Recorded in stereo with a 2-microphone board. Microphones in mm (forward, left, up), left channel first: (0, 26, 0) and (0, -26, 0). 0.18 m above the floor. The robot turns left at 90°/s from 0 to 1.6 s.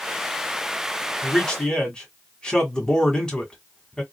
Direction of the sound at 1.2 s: 5° left (ahead or behind).